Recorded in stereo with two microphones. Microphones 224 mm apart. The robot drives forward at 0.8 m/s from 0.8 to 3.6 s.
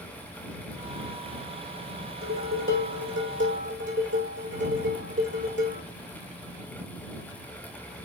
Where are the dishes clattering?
65° right (ahead or behind), 4 m; by 5.8 s 55° right (ahead or behind), 4.5 m.